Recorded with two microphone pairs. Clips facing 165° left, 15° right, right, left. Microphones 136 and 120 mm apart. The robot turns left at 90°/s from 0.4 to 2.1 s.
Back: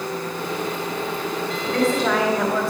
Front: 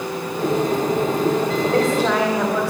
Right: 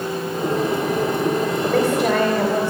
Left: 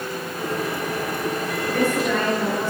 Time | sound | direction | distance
1.6 | a woman speaking | 55° right | 3.5 m